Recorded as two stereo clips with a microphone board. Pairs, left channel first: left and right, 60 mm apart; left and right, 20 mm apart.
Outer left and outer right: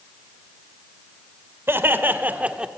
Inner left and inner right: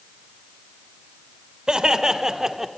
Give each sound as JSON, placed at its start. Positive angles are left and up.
{"t": 1.7, "sound": "laughter", "side_deg": -40, "distance_m": 2.0}